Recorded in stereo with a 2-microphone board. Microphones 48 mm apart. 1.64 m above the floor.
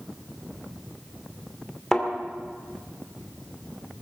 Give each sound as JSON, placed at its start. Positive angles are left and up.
{"t": 1.9, "sound": "a thud", "side_deg": 10, "distance_m": 2.5}